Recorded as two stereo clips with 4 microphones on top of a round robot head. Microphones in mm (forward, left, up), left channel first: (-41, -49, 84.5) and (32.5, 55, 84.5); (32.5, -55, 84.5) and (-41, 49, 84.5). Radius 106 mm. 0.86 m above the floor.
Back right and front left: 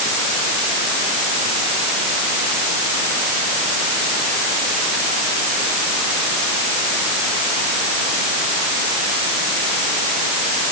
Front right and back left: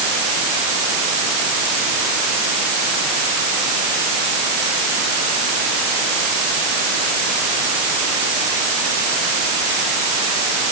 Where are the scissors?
No scissors in this recording.